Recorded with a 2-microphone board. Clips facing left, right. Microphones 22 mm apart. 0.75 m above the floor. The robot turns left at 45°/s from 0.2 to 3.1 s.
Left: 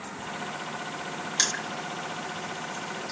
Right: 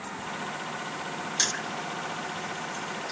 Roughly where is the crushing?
Left.